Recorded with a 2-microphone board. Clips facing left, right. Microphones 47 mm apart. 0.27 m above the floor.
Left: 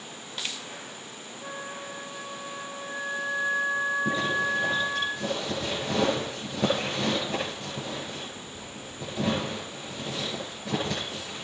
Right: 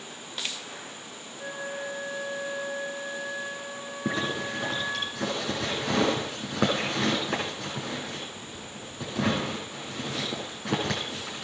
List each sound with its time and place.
1.4 s a flute: 80° right, 8 m
4.0 s a zipper: 80° right, 7 m